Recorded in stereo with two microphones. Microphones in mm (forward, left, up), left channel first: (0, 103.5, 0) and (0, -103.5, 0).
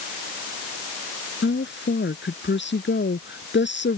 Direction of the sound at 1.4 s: 60° left (ahead or behind).